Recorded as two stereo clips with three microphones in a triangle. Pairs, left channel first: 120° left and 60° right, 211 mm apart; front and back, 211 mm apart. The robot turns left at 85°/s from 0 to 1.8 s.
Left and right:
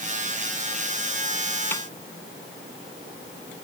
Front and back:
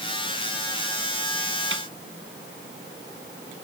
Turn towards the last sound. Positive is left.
turn(degrees=-170)